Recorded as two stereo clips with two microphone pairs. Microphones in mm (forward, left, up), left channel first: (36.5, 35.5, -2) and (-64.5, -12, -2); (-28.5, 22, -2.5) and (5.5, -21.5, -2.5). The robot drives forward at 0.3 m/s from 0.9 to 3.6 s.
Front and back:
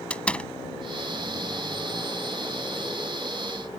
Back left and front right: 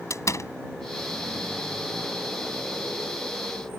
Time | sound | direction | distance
0.1 | a door slam | 105° left | ?